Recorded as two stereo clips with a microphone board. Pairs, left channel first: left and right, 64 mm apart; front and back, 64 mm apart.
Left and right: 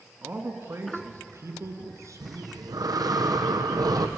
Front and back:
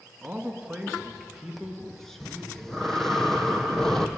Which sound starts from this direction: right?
Breathing, at 2.2 s.